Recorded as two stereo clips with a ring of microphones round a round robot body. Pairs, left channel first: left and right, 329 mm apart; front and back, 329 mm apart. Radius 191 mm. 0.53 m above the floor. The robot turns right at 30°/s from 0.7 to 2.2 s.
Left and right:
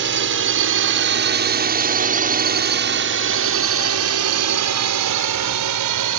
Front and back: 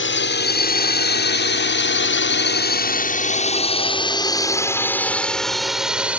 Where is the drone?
45° right; by 6.2 s 95° right.